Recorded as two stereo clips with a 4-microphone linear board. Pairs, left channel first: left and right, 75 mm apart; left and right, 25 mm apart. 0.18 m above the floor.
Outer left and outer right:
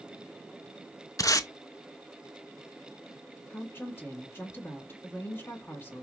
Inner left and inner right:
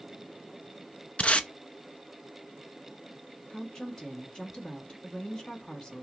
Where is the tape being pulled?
50° left (ahead or behind), 0.5 m.